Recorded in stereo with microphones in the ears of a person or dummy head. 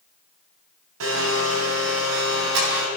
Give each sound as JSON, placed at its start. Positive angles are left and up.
{"t": 1.0, "sound": "a blender", "side_deg": -65, "distance_m": 3.5}